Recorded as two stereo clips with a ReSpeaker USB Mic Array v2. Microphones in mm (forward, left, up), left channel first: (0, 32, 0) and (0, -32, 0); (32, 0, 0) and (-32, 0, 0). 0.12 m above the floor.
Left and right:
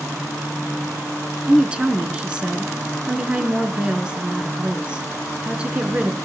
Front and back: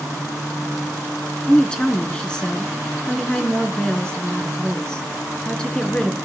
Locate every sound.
1.5 s a woman speaking: 50° right, 1.6 m